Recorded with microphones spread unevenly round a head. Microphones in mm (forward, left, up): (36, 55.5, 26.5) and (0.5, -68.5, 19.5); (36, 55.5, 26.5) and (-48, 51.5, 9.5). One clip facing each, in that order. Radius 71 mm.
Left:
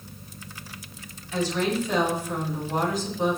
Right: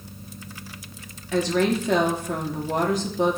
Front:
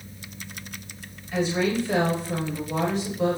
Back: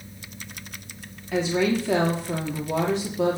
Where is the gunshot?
I don't hear a gunshot.